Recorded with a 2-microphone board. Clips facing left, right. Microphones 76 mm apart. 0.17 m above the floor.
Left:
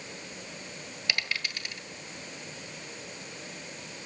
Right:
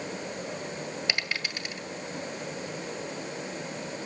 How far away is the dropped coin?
About 1.7 m.